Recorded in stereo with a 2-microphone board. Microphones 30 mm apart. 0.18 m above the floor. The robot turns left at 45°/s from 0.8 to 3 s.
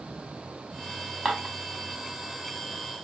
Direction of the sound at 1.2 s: 20° right (ahead or behind).